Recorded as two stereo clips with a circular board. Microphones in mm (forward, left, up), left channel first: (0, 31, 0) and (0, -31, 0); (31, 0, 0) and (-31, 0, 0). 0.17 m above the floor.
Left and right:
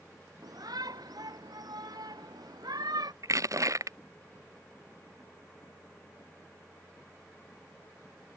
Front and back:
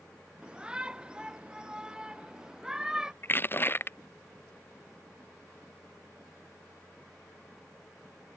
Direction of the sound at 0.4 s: 105° right.